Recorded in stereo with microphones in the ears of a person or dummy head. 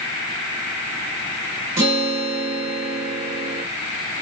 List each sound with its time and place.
1.8 s a guitar: 20° right (ahead or behind), 1.8 m